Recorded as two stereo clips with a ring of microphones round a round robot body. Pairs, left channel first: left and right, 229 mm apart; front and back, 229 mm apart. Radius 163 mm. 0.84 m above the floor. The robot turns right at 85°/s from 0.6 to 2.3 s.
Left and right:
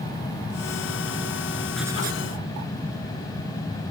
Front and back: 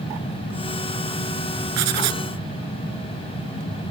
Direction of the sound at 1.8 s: 175° left.